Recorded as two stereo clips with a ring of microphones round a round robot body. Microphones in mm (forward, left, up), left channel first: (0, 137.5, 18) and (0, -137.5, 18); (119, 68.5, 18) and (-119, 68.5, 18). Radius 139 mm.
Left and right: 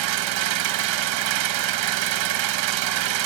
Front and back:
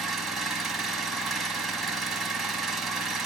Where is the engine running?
90° right, 0.8 m.